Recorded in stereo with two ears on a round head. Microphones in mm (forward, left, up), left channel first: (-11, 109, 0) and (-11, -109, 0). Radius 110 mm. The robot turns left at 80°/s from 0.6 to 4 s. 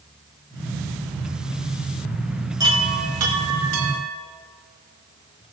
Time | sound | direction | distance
2.6 | a chime | 15° right | 4 m